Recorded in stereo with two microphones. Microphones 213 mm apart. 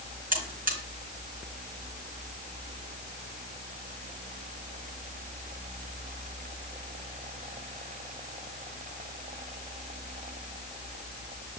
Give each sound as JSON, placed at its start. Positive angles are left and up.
{"t": 0.3, "sound": "a buzzer", "side_deg": -45, "distance_m": 4.0}